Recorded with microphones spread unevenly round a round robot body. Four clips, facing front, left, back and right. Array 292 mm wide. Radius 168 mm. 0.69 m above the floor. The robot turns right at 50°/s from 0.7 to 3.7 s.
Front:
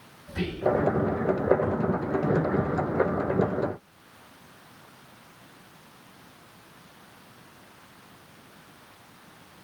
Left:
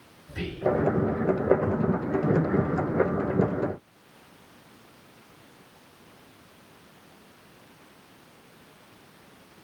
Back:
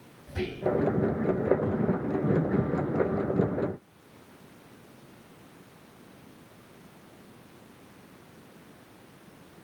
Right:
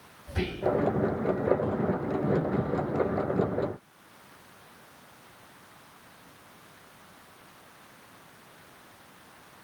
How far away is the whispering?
About 3.5 m.